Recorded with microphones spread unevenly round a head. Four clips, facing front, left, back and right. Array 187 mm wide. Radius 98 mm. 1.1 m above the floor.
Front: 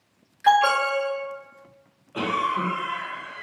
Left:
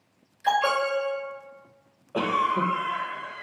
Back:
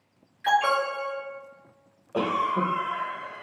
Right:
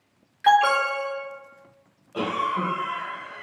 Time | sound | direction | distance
0.4 | an alarm | 65° right | 1.8 m
2.1 | a cough | 150° left | 0.7 m